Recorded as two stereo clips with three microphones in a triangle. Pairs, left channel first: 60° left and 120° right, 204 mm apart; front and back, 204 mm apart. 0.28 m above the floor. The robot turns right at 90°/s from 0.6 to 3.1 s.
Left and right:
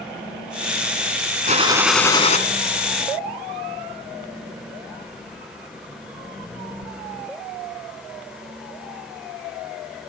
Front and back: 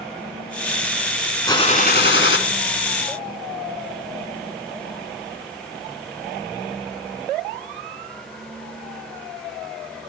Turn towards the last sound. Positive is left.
turn(degrees=75)